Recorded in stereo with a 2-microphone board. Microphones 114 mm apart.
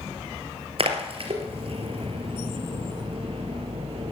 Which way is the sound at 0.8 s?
60° right (ahead or behind).